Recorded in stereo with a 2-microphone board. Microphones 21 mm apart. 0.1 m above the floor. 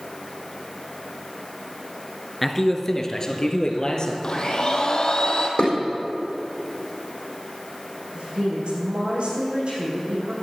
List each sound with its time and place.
2.4 s a man speaking: 10° left (ahead or behind), 1.1 m; by 4.1 s 45° left (ahead or behind), 2 m
4.2 s a blender: 45° left (ahead or behind), 1.5 m
5.6 s dishes clattering: 60° left (ahead or behind), 4 m
8.2 s a woman speaking: 75° right (ahead or behind), 4.5 m